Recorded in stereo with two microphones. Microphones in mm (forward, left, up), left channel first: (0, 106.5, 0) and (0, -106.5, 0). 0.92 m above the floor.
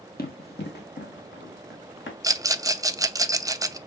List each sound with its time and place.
0.2 s running footsteps: 45° left (ahead or behind), 1.4 m; by 2.1 s 60° left (ahead or behind), 2.5 m
2.2 s a rattle: 15° right (ahead or behind), 0.5 m